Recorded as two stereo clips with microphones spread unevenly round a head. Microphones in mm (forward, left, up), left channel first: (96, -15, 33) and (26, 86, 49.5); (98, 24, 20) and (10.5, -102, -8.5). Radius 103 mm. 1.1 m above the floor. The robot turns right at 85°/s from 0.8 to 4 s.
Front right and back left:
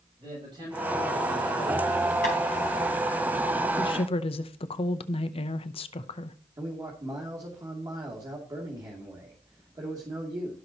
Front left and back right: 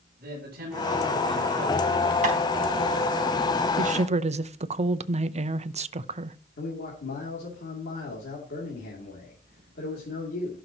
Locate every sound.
0.2 s a man speaking: 170° right, 7.5 m; by 2.1 s 55° right, 7.5 m
2.2 s tapping: 90° right, 4 m; by 2.4 s 80° right, 4 m
3.8 s a woman speaking: 110° right, 0.7 m; by 6.4 s 90° right, 0.7 m
6.6 s a man speaking: 65° left, 2.5 m